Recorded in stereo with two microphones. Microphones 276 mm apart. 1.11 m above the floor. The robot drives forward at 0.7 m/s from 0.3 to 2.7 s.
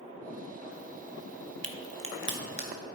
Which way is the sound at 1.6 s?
60° right (ahead or behind).